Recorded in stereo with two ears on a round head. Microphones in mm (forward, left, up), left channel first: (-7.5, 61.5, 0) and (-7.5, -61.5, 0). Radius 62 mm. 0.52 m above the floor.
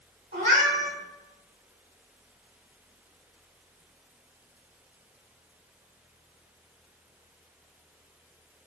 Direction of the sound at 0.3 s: 55° right (ahead or behind).